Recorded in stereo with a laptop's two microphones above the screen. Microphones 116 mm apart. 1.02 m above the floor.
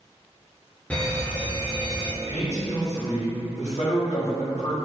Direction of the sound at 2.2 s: 75° left (ahead or behind).